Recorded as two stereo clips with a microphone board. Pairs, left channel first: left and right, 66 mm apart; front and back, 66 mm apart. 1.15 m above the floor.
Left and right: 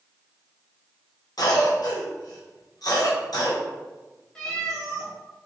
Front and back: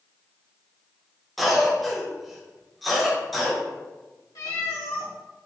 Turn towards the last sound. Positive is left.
turn(degrees=10)